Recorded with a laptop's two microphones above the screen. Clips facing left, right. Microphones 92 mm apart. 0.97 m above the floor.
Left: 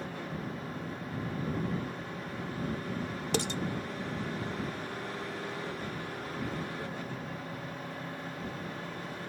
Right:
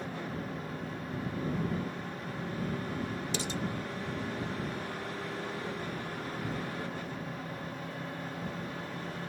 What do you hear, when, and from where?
3.3 s dishes clattering: 60° left (ahead or behind)